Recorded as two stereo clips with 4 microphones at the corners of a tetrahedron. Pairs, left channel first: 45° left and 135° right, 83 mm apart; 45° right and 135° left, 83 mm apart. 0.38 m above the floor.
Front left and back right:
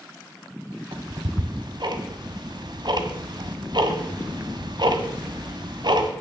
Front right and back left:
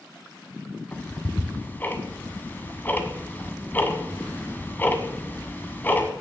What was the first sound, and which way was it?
Ticking, 110° right.